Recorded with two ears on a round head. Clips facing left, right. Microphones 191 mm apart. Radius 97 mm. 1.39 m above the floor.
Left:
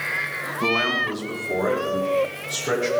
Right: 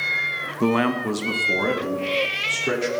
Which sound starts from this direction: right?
A man speaking, at 0.6 s.